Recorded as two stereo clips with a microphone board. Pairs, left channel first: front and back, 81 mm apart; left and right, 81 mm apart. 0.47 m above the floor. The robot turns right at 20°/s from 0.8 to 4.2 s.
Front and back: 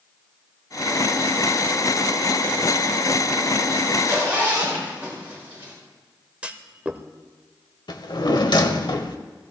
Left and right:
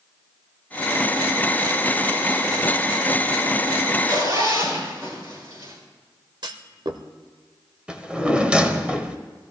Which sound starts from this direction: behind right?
A zipper, at 3.9 s.